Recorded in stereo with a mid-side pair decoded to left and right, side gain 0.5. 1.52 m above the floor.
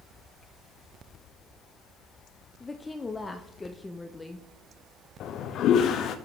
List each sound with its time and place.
2.6 s a woman speaking: 15° left, 0.6 m
5.2 s a toilet flushing: 65° left, 0.6 m